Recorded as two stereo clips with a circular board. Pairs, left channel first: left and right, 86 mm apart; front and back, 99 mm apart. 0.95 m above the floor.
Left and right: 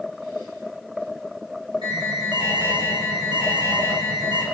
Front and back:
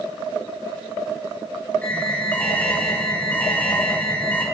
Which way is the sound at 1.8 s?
75° right.